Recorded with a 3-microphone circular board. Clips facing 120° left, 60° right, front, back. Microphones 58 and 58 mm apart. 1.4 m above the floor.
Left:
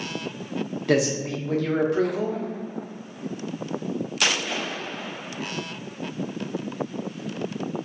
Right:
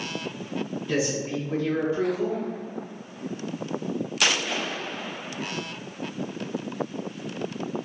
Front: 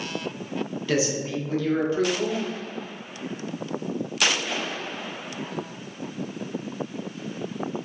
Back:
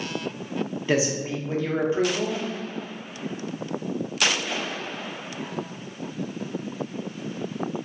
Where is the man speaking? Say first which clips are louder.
Left 5 dB, back 1 dB; 115° left, 0.8 m.